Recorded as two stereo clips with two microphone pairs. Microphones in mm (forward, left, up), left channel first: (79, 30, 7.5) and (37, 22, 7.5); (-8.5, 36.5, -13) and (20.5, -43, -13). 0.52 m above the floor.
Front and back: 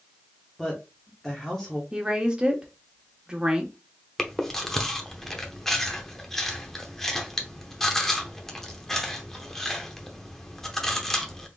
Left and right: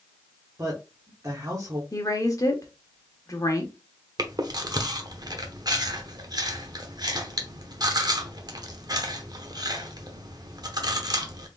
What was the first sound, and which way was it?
A woman speaking, 60° right.